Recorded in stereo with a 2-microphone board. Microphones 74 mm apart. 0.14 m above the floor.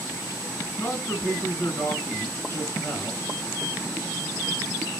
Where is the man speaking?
35° left (ahead or behind), 1.9 m.